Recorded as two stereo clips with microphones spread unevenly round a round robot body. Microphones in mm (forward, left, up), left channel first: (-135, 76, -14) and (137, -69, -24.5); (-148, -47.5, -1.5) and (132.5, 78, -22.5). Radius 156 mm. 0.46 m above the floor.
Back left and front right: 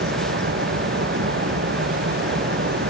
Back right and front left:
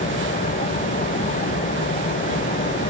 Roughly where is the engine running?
Right.